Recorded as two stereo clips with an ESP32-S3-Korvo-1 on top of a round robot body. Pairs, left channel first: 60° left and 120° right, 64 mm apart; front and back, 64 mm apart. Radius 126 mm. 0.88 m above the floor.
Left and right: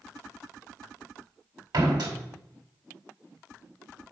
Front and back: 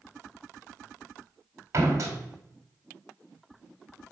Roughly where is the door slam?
Behind right.